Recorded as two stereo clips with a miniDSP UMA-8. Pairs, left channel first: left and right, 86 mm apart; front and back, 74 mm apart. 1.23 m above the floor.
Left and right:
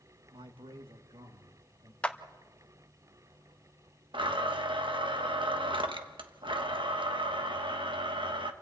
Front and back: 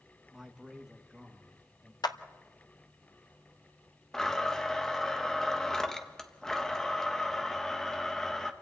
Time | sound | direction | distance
0.3 | a man speaking | 95° right | 1.4 m
2.0 | a clap | 15° left | 0.9 m
4.1 | a blender | 80° right | 1.4 m